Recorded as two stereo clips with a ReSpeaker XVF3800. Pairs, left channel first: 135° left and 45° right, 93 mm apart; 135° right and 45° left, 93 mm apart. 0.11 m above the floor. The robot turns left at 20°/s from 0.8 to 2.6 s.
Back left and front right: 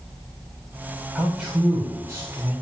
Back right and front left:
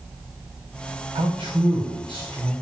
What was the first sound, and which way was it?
A man speaking, 40° left.